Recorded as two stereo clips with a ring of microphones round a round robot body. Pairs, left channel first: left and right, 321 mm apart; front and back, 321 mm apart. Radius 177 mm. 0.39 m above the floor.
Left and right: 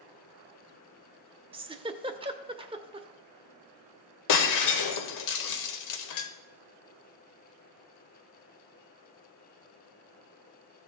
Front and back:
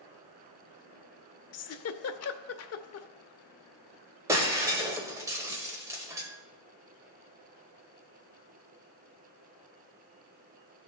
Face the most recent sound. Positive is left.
turn(degrees=100)